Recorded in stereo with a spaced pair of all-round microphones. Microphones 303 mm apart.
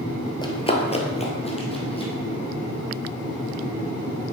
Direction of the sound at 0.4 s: 15° left (ahead or behind).